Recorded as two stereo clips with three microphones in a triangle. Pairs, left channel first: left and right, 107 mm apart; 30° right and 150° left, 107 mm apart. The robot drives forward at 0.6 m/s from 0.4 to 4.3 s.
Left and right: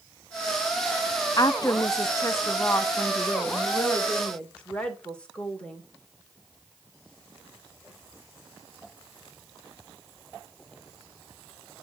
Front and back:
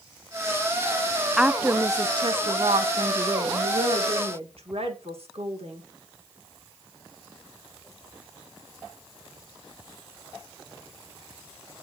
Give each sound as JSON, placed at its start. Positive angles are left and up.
{"t": 1.4, "sound": "a woman speaking", "azimuth_deg": 65, "distance_m": 0.6}